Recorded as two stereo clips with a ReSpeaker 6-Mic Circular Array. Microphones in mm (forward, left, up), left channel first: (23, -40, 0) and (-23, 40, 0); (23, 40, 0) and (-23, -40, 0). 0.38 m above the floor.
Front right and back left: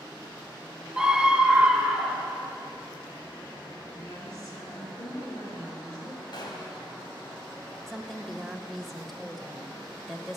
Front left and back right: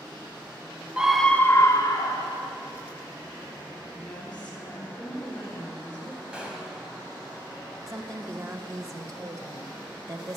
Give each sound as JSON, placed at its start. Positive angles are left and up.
{"t": 1.0, "sound": "a scream", "azimuth_deg": -170, "distance_m": 0.8}
{"t": 3.9, "sound": "a woman speaking", "azimuth_deg": -15, "distance_m": 4.0}
{"t": 6.3, "sound": "a gunshot", "azimuth_deg": -40, "distance_m": 3.0}
{"t": 7.9, "sound": "a woman speaking", "azimuth_deg": -150, "distance_m": 1.2}